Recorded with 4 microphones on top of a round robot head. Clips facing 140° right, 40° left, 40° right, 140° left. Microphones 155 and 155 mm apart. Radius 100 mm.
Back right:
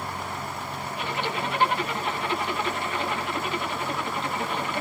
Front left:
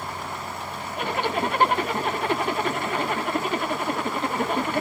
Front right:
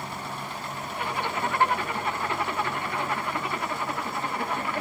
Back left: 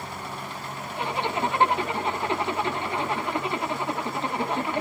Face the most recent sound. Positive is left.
turn(degrees=75)